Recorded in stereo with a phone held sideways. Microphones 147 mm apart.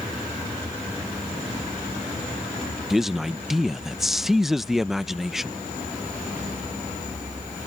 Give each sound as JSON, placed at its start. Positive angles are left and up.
{"t": 2.9, "sound": "a man speaking", "side_deg": 0}